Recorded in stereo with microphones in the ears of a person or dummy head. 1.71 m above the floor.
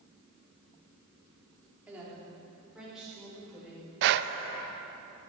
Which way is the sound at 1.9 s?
5° right (ahead or behind).